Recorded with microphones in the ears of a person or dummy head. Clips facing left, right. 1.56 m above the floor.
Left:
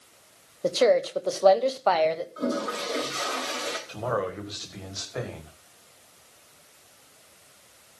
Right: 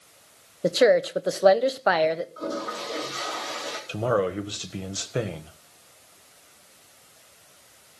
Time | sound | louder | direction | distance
0.6 | a woman speaking | right 2 dB | 20° right (ahead or behind) | 0.8 m
2.4 | a toilet flushing | left 3 dB | 30° left (ahead or behind) | 3.5 m
3.9 | a man speaking | right 6 dB | 45° right (ahead or behind) | 1.7 m